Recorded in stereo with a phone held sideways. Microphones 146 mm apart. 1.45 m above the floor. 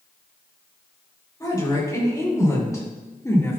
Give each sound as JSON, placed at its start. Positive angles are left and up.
{"t": 1.4, "sound": "a woman speaking", "side_deg": 25, "distance_m": 4.0}